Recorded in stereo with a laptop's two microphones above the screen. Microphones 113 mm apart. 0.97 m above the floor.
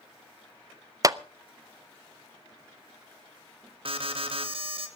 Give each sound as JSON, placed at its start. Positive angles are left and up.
{"t": 1.0, "sound": "a clap", "side_deg": -35, "distance_m": 0.5}
{"t": 3.9, "sound": "an alarm", "side_deg": -60, "distance_m": 2.0}